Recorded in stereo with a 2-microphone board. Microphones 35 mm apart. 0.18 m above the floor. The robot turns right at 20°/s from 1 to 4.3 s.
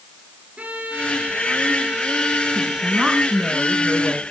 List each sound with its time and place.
0.6 s a violin: 45° right, 8.5 m; by 3.5 s 5° left, 8.5 m
2.5 s a woman speaking: 35° right, 3 m; by 4.2 s 5° right, 3 m